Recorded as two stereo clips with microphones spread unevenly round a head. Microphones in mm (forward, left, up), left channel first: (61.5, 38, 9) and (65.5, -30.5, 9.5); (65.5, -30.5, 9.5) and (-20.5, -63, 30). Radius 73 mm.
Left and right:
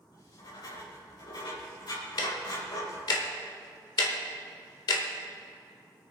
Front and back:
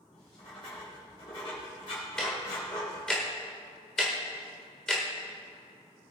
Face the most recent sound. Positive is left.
turn(degrees=115)